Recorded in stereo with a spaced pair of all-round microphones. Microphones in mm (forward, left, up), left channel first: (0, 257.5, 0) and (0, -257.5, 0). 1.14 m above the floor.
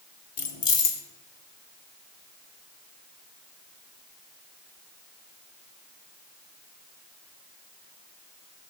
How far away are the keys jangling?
About 0.9 m.